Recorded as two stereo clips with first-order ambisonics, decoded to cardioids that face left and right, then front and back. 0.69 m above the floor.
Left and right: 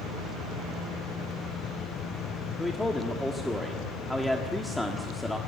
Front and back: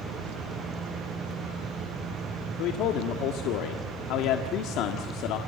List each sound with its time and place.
2.6 s a man speaking: 10° left, 1.5 m